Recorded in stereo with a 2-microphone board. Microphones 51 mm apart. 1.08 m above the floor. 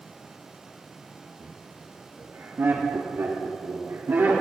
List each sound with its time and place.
1.4 s laughter: 40° right (ahead or behind), 1.8 m; by 4.4 s 80° right, 3 m